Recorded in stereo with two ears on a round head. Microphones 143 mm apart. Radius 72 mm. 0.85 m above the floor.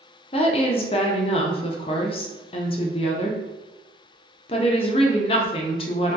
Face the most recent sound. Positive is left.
turn(degrees=35)  # may be behind; listen again after turning